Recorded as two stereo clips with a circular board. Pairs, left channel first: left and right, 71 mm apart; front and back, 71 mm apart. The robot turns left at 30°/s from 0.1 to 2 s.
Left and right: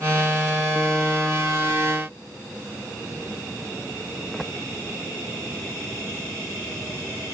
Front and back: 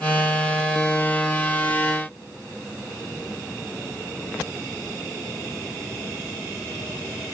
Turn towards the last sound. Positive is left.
No sound to turn to.